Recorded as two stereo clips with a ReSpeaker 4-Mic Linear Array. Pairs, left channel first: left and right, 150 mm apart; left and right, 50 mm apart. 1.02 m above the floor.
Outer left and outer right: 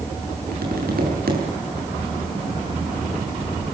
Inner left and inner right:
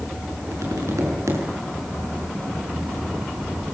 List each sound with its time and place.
0.5 s tapping: 85° right, 6 m